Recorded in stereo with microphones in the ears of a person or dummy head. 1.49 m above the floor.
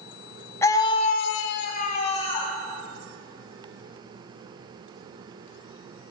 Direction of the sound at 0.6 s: 15° left (ahead or behind).